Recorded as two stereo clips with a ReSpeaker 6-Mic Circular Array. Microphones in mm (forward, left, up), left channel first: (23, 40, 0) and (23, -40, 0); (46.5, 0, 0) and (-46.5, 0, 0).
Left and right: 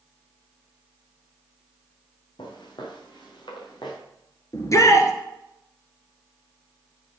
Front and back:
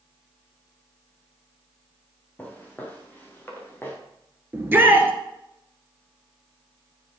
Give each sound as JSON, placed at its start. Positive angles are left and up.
{"t": 2.4, "sound": "footsteps", "azimuth_deg": 75, "distance_m": 3.0}
{"t": 4.5, "sound": "a shout", "azimuth_deg": 120, "distance_m": 1.6}